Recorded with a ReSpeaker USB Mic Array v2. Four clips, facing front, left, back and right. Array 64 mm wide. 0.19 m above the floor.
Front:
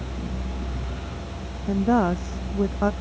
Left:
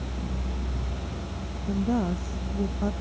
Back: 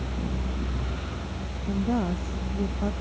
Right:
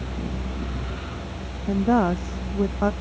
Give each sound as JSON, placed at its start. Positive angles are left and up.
{"t": 1.7, "sound": "a woman speaking", "azimuth_deg": -55}